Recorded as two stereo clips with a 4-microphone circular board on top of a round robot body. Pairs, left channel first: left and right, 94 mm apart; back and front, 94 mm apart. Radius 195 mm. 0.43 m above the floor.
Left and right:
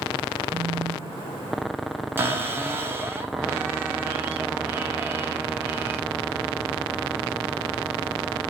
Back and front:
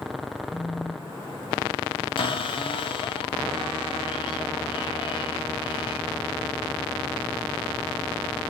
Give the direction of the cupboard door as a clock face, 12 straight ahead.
5 o'clock.